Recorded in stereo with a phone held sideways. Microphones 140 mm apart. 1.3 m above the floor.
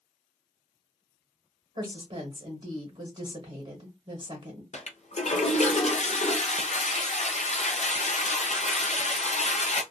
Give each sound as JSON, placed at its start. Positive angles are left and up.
{"t": 1.8, "sound": "a woman speaking", "side_deg": -30, "distance_m": 0.9}
{"t": 4.7, "sound": "a toilet flushing", "side_deg": 55, "distance_m": 0.5}